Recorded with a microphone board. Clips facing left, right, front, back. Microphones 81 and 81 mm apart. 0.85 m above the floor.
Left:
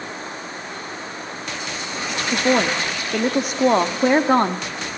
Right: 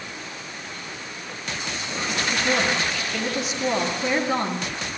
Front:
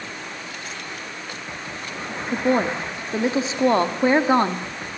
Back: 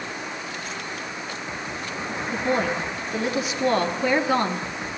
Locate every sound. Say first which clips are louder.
2.3 s a woman speaking: left 6 dB, front 4 dB; 60° left, 1.9 m